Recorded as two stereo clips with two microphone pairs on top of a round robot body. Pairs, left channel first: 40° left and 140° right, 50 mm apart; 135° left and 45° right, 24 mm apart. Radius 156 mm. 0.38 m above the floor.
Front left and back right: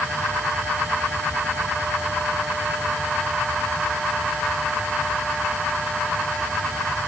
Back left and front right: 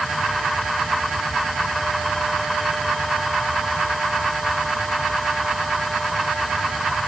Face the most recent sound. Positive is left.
No sound to turn to.